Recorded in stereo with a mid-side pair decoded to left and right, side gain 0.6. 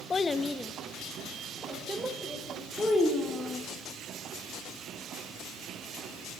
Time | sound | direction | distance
0.1 | a child speaking | 25° left | 0.8 m
2.8 | a child speaking | 10° left | 2 m